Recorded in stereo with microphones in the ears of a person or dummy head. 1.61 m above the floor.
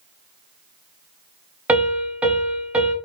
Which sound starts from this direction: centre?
A piano, at 1.7 s.